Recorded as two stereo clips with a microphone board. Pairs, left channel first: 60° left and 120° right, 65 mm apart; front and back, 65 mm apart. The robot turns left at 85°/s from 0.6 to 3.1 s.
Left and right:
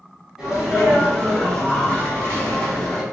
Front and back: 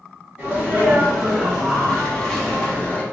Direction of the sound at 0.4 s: Straight behind.